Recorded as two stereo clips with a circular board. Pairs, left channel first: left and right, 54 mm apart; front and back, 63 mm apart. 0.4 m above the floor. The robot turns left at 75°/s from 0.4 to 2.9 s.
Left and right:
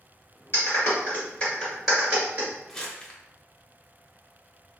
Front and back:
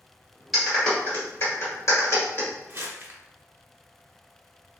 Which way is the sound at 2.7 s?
165° left.